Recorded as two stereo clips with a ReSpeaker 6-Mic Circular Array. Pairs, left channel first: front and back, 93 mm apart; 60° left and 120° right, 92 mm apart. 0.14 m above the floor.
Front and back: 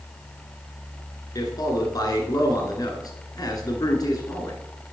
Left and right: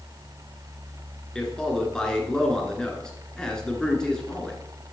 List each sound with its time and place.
1.4 s a man speaking: 20° right, 1.4 m